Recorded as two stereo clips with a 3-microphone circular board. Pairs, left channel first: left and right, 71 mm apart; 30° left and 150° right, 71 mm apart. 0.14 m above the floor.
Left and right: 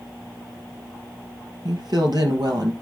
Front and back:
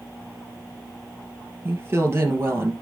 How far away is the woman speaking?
About 2.5 m.